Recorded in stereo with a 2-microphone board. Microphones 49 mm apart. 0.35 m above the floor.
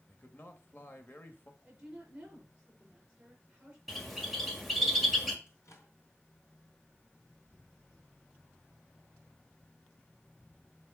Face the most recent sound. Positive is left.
turn(degrees=70)  # may be behind; listen again after turning